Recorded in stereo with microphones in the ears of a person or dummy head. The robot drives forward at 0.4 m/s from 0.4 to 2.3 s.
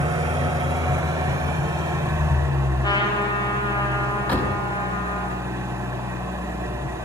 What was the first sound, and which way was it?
An engine running, 20° right (ahead or behind).